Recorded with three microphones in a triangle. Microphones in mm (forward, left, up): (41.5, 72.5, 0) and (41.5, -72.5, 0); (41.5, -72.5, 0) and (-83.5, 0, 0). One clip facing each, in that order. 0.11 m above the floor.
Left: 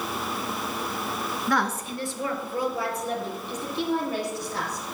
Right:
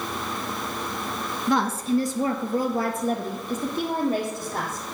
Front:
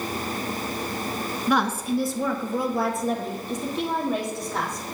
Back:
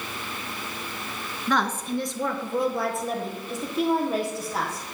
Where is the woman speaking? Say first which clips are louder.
Right 5 dB, front 2 dB; 90° right, 1.1 m; by 4.8 s 125° right, 4 m.